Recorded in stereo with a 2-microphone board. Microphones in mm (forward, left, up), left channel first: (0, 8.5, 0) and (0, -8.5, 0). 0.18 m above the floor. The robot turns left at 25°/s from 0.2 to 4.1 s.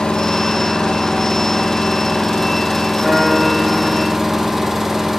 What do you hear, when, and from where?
0.0 s an engine running: 85° left, 2.5 m; by 5.2 s 15° right, 2.5 m
3.0 s a guitar: 10° left (ahead or behind), 6 m; by 4.7 s 40° left (ahead or behind), 6 m